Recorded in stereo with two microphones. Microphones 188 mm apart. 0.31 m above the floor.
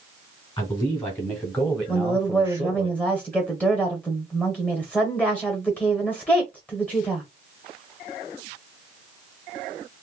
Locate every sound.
0.6 s a man speaking: 25° left (ahead or behind), 1.6 m; by 2.9 s 25° right (ahead or behind), 1.0 m
1.9 s a woman speaking: 10° left (ahead or behind), 1.3 m